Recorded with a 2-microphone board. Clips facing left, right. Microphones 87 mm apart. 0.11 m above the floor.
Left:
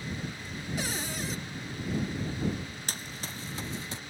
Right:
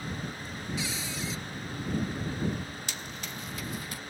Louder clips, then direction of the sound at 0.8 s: Left 3 dB; 50° left (ahead or behind).